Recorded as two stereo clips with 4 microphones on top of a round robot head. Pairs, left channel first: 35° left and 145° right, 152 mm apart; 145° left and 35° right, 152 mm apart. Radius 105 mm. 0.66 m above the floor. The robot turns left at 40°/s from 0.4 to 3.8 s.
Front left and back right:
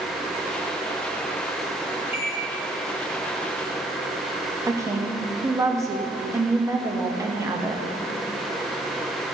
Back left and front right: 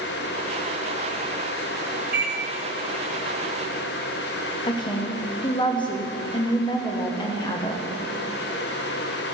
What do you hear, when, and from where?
2.1 s a microwave: 70° right, 2.5 m; by 2.4 s 75° right, 2.5 m
4.7 s a woman speaking: 165° left, 1.1 m